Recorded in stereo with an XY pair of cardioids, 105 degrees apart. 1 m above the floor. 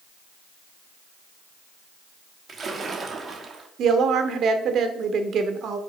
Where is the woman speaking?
60° right, 2.5 m.